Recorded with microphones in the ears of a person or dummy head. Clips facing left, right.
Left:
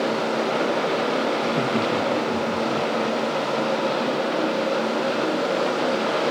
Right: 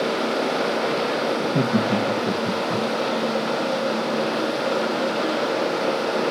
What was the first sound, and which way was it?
Laughter, 40° right (ahead or behind).